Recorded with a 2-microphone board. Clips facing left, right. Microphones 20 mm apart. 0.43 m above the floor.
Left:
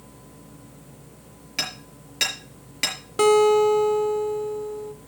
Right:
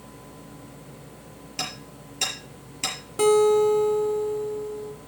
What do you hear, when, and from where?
1.6 s hammering: 80° left, 5 m
3.2 s a guitar: 25° left (ahead or behind), 0.9 m